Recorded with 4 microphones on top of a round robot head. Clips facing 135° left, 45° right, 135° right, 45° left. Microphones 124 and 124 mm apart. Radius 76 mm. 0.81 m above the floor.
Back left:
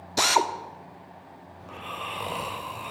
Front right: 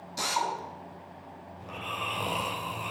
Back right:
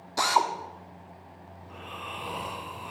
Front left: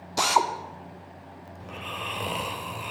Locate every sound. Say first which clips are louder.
0.2 s a drill: back left 7 dB, front left 1 dB; 120° left, 1.2 m
1.6 s snoring: even, front left 5 dB; 40° left, 3 m